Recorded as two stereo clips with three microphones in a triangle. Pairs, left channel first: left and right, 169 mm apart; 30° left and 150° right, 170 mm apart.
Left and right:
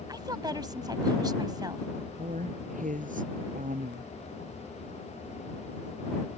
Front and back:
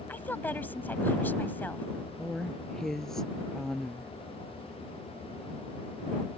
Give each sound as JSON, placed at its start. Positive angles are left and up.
{"t": 0.1, "sound": "a woman speaking", "azimuth_deg": -40}
{"t": 2.2, "sound": "a woman speaking", "azimuth_deg": -55}